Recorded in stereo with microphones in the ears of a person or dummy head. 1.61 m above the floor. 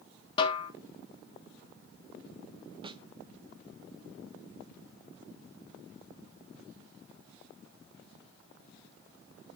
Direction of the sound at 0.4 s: 30° left (ahead or behind).